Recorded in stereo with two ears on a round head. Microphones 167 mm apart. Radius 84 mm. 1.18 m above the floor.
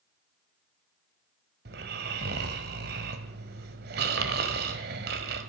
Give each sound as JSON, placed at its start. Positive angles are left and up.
{"t": 1.6, "sound": "snoring", "side_deg": -60, "distance_m": 1.6}